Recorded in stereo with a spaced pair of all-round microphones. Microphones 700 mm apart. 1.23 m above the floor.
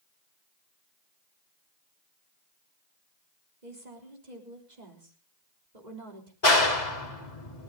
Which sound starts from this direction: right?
A woman speaking, at 3.6 s.